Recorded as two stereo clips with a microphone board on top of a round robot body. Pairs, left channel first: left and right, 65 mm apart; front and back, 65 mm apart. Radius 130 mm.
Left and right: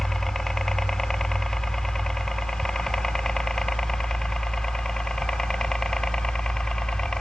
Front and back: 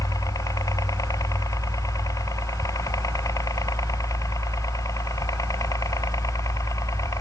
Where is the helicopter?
5° left; by 7.2 s 10° left.